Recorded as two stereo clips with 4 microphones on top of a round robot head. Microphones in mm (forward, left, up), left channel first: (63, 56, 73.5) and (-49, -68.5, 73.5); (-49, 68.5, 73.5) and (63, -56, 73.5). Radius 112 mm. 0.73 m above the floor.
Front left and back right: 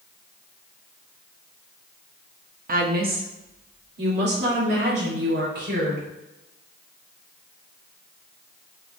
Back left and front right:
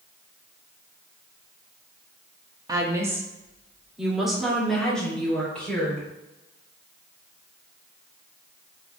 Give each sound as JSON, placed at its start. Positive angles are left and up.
{"t": 2.7, "sound": "a woman speaking", "azimuth_deg": -115, "distance_m": 1.5}